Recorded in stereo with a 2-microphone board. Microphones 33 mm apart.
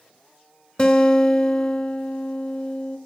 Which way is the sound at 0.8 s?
30° left (ahead or behind).